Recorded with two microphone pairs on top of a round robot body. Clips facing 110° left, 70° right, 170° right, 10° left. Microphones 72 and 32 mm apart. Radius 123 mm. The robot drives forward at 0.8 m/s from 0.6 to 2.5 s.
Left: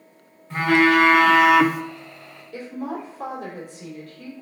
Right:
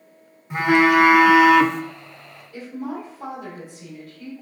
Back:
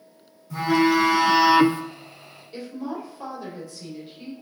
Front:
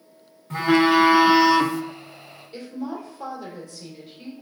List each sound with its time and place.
0.5 s a phone buzzing: 5° right, 0.9 m; by 1.8 s 170° right, 0.6 m
2.5 s a woman speaking: 105° left, 2.5 m